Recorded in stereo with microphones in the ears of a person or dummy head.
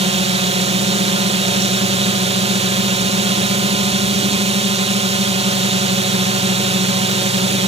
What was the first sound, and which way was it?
A drone, 35° right (ahead or behind).